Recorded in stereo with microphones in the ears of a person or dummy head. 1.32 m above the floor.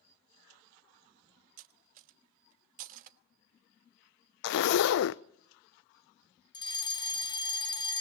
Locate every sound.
1.6 s cutlery clinking: 40° right (ahead or behind), 1.2 m
4.4 s a zipper: 60° left (ahead or behind), 0.5 m
6.5 s a fire alarm: 15° left (ahead or behind), 0.9 m